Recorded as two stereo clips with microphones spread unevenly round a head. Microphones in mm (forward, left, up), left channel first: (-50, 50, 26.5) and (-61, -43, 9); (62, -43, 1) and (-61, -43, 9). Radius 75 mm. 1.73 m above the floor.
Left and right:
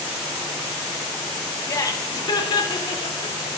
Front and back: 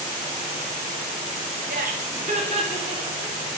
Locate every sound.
1.7 s laughter: 140° left, 1.7 m; by 3.4 s 110° left, 2.5 m